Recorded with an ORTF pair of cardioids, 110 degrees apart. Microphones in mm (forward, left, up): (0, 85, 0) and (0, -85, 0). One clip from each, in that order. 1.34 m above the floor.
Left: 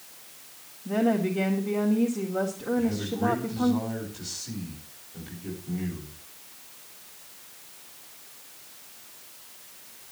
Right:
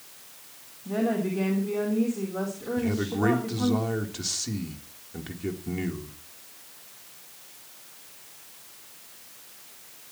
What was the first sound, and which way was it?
A woman speaking, 15° left.